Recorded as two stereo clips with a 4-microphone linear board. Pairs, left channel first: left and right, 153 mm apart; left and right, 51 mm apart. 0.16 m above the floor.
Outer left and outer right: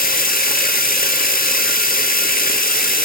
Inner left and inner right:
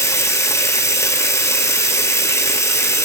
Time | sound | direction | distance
0.0 | running water | 75° left (ahead or behind) | 0.9 m